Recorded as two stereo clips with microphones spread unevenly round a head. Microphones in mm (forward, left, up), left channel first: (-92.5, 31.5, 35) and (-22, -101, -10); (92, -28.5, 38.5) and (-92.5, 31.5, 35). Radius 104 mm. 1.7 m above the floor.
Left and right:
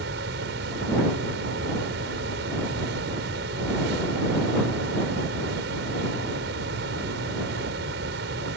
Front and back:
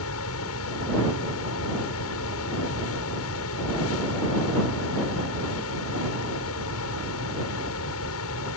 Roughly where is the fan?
Ahead right.